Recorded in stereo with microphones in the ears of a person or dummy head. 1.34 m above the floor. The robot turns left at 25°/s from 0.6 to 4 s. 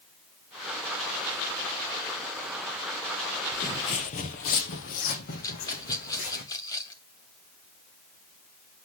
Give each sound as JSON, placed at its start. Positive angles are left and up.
{"t": 3.5, "sound": "footsteps", "side_deg": 15, "distance_m": 1.3}
{"t": 5.4, "sound": "a rattle", "side_deg": 20, "distance_m": 1.4}